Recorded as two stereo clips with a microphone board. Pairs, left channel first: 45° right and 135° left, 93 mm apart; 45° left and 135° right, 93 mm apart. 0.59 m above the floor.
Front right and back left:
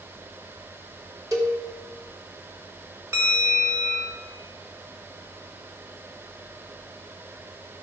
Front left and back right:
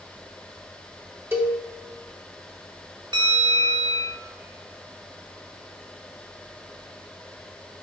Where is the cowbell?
170° left, 1.6 m.